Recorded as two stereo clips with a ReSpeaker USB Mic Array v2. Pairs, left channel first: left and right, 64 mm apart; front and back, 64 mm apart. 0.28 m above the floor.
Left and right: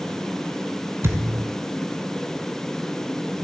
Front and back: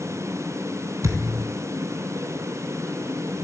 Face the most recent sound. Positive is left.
turn(degrees=-145)